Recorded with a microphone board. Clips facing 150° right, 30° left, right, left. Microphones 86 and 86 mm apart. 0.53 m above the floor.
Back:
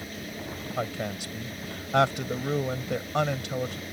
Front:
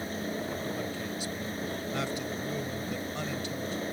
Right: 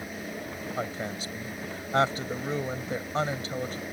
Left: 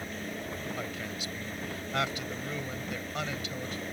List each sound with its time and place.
0.8 s a woman speaking: 145° right